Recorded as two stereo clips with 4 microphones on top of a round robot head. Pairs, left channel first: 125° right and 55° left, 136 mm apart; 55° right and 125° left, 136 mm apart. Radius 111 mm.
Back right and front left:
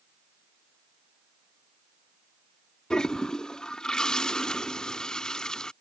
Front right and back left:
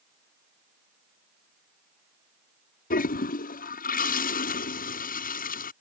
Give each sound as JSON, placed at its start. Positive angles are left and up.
{"t": 2.9, "sound": "a toilet flushing", "azimuth_deg": -40}